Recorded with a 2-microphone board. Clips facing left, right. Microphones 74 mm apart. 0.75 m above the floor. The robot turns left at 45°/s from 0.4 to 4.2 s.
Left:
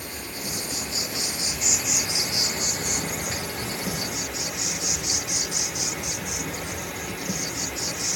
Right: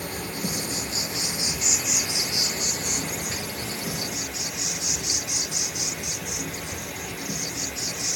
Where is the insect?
120° right, 0.7 m; by 8.2 s 70° left, 0.7 m.